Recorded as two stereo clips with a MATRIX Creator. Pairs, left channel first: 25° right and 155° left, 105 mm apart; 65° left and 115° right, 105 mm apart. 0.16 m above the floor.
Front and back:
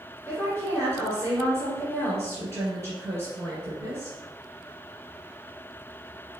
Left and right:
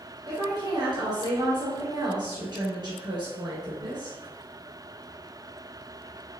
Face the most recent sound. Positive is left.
turn(degrees=-80)